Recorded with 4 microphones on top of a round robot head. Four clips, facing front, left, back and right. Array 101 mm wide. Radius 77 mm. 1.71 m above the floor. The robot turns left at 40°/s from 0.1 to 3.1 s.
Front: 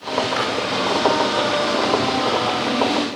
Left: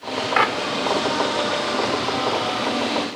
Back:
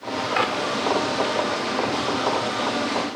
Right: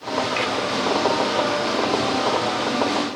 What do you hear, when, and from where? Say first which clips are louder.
0.4 s a clap: left 5 dB, even; 110° left; by 0.6 s 100° left